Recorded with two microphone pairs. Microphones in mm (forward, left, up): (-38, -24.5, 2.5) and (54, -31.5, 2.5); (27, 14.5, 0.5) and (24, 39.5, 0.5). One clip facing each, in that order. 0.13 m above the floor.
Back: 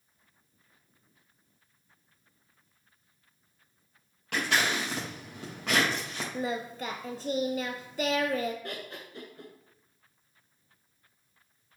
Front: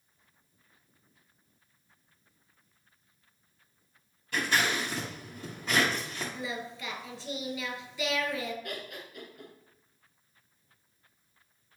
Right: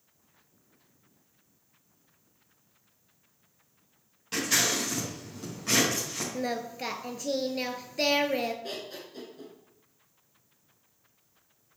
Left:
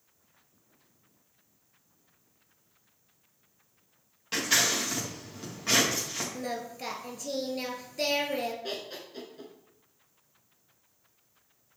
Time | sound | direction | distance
4.3 | scissors | 165° left | 4 m
6.3 | singing | 150° right | 0.9 m
8.6 | laughter | 150° left | 1.3 m